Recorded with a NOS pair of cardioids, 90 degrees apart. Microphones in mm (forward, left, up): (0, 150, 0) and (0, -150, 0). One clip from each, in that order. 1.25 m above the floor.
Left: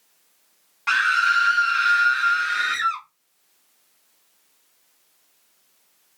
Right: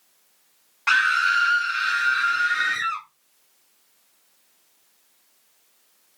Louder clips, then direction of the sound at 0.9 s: Even; 15° right.